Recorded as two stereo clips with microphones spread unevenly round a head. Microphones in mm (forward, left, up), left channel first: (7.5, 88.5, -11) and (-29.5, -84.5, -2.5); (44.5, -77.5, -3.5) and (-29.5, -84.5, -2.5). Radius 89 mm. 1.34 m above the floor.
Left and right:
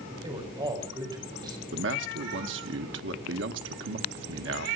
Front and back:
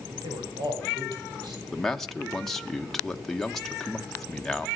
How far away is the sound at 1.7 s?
About 1.3 m.